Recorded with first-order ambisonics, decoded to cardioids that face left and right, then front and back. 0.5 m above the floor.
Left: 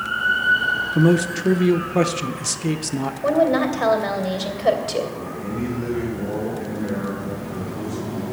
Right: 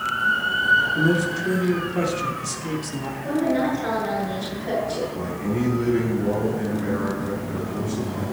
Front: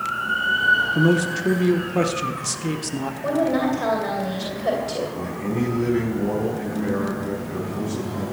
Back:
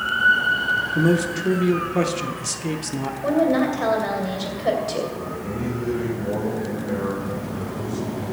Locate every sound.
0.9 s a man speaking: 85° left, 0.7 m
3.2 s a woman speaking: 95° left, 2.5 m
5.1 s a man speaking: 30° right, 5 m